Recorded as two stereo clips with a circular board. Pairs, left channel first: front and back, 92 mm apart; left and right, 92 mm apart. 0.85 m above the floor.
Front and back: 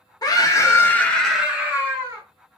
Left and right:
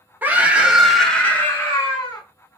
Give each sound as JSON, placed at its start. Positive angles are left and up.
{"t": 0.2, "sound": "a scream", "azimuth_deg": -25, "distance_m": 0.9}